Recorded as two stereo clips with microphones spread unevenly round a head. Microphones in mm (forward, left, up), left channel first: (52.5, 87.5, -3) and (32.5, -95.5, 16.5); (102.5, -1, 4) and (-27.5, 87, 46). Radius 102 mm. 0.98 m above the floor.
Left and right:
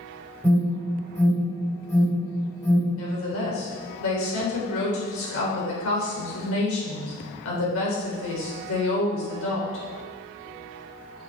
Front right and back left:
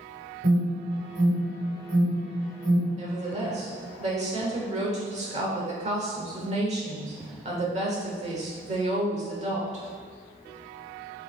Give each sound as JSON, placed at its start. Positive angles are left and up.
{"t": 0.4, "sound": "an alarm", "azimuth_deg": 160, "distance_m": 4.0}
{"t": 3.0, "sound": "a woman speaking", "azimuth_deg": 95, "distance_m": 3.5}